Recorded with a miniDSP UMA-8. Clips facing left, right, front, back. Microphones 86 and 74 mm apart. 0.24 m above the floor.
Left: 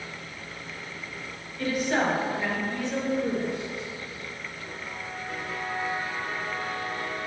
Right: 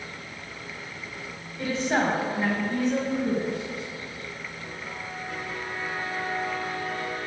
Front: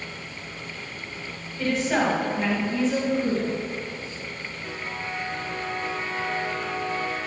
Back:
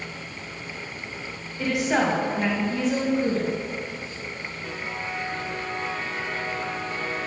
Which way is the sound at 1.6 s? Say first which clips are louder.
Right 1 dB, even; 115° right.